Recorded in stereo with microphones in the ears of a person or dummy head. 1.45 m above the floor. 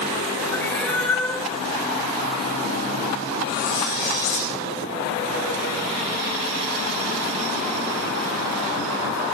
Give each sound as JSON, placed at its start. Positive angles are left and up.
{"t": 0.5, "sound": "a cat meowing", "side_deg": 10, "distance_m": 1.6}
{"t": 3.5, "sound": "cutlery clinking", "side_deg": 65, "distance_m": 9.0}